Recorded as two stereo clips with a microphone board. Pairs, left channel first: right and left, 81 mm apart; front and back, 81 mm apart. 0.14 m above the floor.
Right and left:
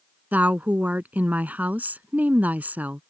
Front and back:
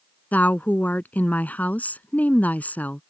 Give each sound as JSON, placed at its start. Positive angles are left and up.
{"t": 0.3, "sound": "a woman speaking", "azimuth_deg": 45}